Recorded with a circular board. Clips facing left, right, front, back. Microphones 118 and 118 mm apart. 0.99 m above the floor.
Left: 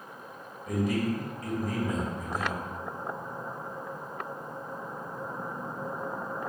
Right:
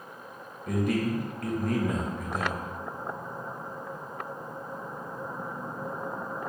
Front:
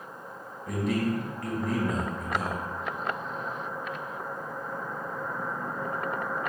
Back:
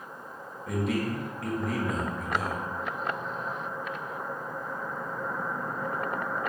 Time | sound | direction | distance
0.7 | a man speaking | 90° right | 0.8 m